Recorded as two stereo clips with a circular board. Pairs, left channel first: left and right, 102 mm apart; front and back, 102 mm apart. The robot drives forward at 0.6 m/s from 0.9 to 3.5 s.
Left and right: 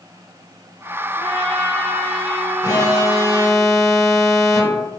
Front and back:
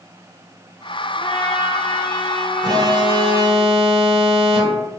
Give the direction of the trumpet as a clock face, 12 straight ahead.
6 o'clock.